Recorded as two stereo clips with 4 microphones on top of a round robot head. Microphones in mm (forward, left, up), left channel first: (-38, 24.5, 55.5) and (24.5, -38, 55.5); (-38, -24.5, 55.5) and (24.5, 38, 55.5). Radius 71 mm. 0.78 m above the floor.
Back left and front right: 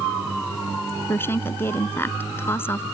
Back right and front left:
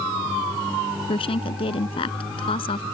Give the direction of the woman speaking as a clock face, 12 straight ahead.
5 o'clock.